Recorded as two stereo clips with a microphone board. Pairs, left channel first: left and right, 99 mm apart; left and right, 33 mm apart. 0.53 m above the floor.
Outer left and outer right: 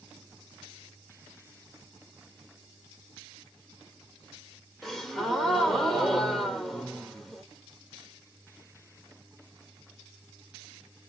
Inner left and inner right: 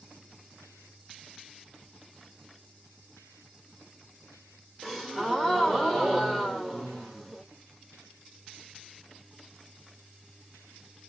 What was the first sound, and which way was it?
A gasp, centre (ahead or behind).